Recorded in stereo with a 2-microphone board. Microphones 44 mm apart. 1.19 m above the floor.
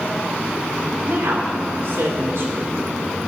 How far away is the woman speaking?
About 2.5 m.